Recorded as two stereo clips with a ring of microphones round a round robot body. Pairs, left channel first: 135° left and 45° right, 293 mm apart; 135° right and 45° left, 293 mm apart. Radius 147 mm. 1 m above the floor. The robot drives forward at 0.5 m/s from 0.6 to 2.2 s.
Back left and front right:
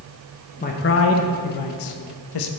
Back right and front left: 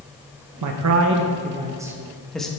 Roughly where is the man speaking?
Left.